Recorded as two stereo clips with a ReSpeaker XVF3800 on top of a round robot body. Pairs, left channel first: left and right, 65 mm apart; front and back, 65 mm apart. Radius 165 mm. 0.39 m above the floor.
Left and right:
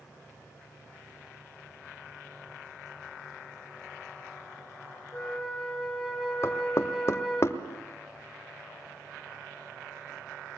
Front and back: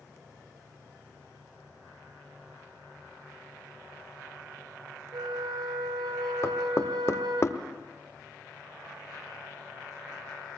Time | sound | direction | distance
5.1 | a flute | 175° left | 2.5 m
6.4 | knocking | 45° left | 1.6 m